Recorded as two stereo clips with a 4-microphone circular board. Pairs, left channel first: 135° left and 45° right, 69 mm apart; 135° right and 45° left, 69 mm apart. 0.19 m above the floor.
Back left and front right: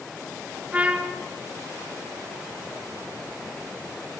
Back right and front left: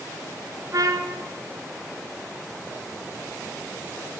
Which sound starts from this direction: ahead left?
A trumpet, at 0.7 s.